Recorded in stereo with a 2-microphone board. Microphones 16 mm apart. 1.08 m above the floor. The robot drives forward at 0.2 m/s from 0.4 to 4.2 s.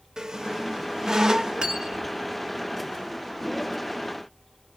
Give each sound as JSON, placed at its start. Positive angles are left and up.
{"t": 0.2, "sound": "a squeak", "side_deg": -45, "distance_m": 0.7}
{"t": 1.6, "sound": "cutlery clinking", "side_deg": -75, "distance_m": 1.0}